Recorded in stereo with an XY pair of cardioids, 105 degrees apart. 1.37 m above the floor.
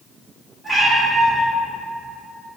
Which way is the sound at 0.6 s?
10° right.